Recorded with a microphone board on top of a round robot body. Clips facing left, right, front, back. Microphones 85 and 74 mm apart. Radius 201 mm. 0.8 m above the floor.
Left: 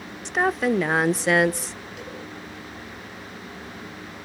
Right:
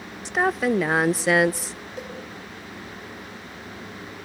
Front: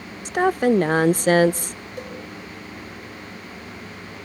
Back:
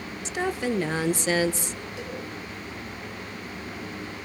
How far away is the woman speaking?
About 0.8 m.